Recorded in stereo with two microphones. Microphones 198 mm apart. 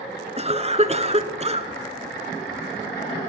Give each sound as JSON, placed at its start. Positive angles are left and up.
{"t": 0.4, "sound": "a cough", "side_deg": -35, "distance_m": 1.3}